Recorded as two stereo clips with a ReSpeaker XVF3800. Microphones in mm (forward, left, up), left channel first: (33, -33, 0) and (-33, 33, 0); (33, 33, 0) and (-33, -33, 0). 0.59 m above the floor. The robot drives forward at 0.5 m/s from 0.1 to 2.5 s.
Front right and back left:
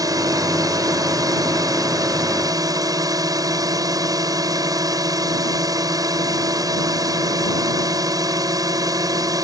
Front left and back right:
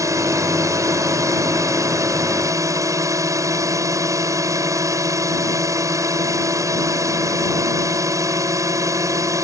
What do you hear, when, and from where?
0.0 s a drone: straight behind